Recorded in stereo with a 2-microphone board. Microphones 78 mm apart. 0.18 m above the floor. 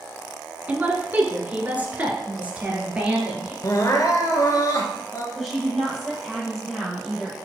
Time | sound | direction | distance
0.7 | a woman speaking | 20° right (ahead or behind) | 1.4 m
3.6 | crying | 45° left (ahead or behind) | 1.6 m
5.3 | a woman speaking | centre (ahead or behind) | 4.5 m